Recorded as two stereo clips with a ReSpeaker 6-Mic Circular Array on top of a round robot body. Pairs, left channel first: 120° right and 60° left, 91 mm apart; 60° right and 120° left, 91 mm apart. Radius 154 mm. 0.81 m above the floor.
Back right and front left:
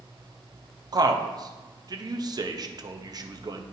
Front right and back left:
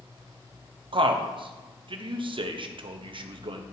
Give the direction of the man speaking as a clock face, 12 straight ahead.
9 o'clock.